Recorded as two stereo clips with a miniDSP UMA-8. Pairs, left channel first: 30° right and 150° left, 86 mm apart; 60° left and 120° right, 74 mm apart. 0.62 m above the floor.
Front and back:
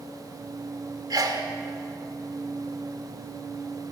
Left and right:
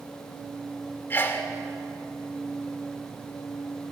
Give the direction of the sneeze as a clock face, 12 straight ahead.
8 o'clock.